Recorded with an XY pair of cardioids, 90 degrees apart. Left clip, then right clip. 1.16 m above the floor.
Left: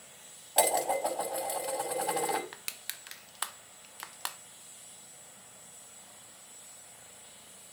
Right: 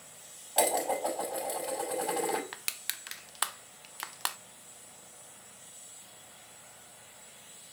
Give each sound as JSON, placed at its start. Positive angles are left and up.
{"t": 0.6, "sound": "dishes clattering", "azimuth_deg": 15, "distance_m": 5.5}
{"t": 2.5, "sound": "crushing", "azimuth_deg": -30, "distance_m": 0.7}